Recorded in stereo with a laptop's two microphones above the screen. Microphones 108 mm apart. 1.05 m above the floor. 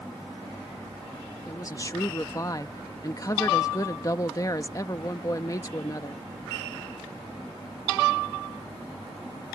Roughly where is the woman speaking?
Left.